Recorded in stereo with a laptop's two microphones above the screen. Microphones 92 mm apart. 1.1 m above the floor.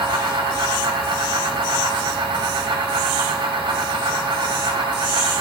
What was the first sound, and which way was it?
A fan, 70° right (ahead or behind).